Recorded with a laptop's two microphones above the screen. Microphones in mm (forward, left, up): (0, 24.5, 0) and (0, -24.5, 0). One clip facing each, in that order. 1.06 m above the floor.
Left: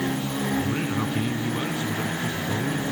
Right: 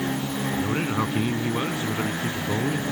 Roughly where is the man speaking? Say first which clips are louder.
Right 2 dB; right.